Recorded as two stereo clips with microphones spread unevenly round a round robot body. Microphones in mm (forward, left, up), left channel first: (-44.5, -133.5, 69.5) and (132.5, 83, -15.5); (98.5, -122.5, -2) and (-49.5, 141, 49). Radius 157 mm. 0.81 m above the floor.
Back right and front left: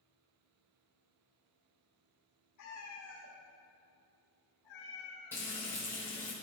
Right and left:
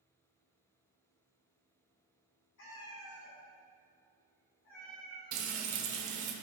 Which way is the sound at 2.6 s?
110° right.